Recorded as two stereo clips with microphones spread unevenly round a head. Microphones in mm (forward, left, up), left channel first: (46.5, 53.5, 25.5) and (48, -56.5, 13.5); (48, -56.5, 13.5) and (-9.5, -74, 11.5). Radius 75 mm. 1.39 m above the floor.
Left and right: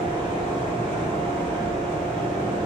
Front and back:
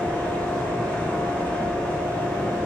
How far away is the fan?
About 0.9 m.